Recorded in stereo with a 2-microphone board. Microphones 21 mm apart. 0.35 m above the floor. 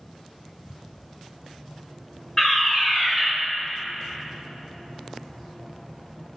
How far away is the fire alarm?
About 2 m.